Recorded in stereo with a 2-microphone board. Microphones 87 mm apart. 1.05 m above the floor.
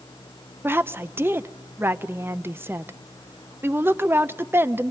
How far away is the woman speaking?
About 0.6 m.